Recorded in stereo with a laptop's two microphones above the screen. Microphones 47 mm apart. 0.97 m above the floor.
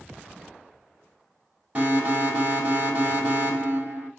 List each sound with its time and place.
1.8 s an alarm: 30° right (ahead or behind), 3.5 m